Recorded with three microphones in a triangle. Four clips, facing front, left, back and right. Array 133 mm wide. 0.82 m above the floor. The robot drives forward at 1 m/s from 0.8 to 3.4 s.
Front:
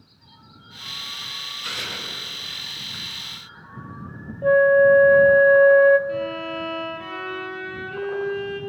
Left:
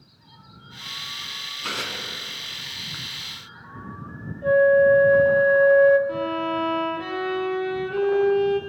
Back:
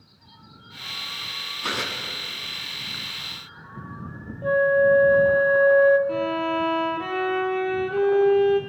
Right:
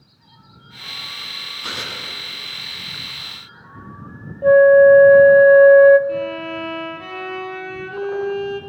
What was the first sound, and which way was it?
Tearing paper, 165° right.